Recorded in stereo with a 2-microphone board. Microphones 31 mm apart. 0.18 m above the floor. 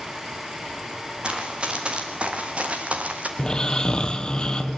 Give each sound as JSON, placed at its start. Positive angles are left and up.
{"t": 1.2, "sound": "running footsteps", "side_deg": -30, "distance_m": 4.0}
{"t": 3.4, "sound": "snoring", "side_deg": 25, "distance_m": 1.3}